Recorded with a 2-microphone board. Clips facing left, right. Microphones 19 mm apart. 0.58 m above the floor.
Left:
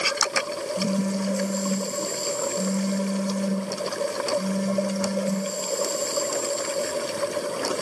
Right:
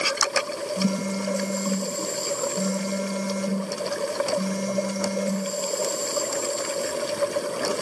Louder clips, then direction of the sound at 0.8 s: Left 1 dB; 75° right (ahead or behind).